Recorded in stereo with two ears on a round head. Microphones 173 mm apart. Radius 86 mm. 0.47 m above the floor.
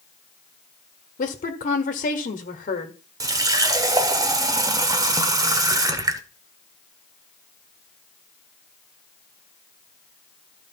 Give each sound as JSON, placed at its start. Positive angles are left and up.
{"t": 1.2, "sound": "a woman speaking", "side_deg": 40, "distance_m": 1.5}
{"t": 3.2, "sound": "a running tap", "side_deg": -20, "distance_m": 0.9}